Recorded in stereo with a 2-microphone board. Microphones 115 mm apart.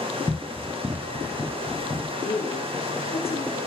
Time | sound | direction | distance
0.3 | running footsteps | 5° right (ahead or behind) | 0.9 m
2.2 | a woman speaking | 65° left (ahead or behind) | 5 m